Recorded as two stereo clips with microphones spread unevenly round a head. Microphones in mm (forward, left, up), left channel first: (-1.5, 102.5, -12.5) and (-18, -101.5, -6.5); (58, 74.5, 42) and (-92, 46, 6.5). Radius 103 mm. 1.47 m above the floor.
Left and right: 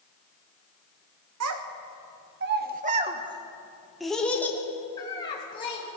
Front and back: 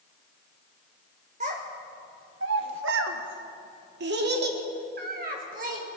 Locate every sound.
1.4 s a child speaking: 105° right, 1.2 m; by 5.8 s 150° left, 1.9 m